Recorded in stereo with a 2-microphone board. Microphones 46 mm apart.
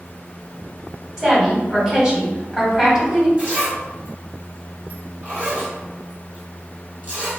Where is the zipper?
35° right (ahead or behind), 1.8 m.